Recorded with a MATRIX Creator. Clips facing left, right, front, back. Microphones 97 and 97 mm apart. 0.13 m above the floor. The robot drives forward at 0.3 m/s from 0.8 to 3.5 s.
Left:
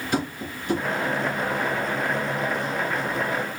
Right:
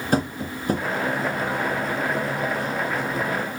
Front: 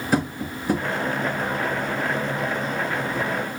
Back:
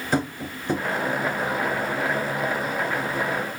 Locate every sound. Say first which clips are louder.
0.1 s tapping: right 4 dB, front 2 dB; 80° right, 1.8 m